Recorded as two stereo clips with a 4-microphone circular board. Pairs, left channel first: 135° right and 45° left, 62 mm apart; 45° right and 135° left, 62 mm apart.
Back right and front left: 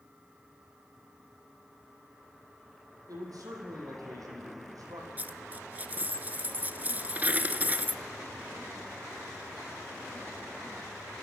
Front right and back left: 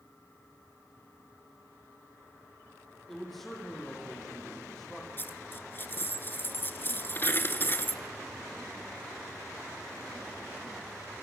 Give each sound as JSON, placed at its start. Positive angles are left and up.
{"t": 3.1, "sound": "a man speaking", "azimuth_deg": 45, "distance_m": 6.5}
{"t": 5.2, "sound": "a dropped coin", "azimuth_deg": -5, "distance_m": 0.7}